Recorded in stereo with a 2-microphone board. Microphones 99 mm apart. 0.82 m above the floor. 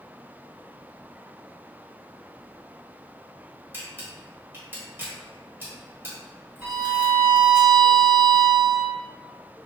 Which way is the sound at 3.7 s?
20° right (ahead or behind).